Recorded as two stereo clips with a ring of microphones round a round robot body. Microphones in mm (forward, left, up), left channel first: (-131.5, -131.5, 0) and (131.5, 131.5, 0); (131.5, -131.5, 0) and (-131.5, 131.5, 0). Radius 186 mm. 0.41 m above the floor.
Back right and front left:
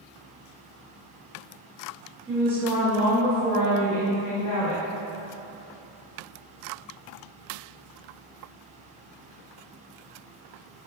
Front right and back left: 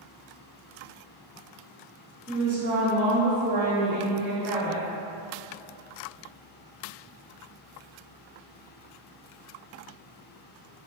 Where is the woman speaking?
105° left, 0.9 m; by 4.8 s 155° left, 2.5 m.